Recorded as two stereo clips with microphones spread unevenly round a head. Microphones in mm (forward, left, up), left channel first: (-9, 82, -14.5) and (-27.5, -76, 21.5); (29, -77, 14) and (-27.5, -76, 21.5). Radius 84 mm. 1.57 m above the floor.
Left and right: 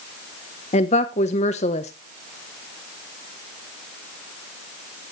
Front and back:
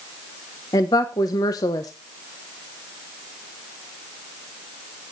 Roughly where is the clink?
I don't hear a clink.